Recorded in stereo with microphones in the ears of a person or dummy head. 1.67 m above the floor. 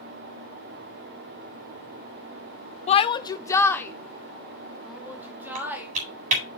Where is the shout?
30° left (ahead or behind), 0.6 m; by 5.9 s 5° right (ahead or behind), 2.5 m.